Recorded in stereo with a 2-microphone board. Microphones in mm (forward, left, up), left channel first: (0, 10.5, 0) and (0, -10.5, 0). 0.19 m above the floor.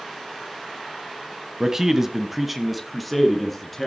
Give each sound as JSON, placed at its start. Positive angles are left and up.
{"t": 1.6, "sound": "a man speaking", "side_deg": -25, "distance_m": 1.0}